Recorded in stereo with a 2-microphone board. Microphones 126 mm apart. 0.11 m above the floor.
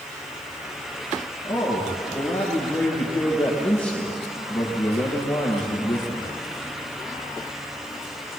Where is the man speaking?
5° left (ahead or behind), 9.5 m.